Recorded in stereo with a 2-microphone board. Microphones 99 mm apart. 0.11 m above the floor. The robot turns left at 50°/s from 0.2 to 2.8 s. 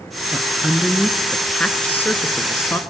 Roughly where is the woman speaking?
Centre.